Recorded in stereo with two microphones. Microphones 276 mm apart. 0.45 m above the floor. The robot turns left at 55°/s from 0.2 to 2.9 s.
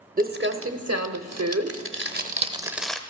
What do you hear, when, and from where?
0.2 s crumpling: 30° right (ahead or behind), 0.7 m; by 3.0 s centre (ahead or behind), 0.7 m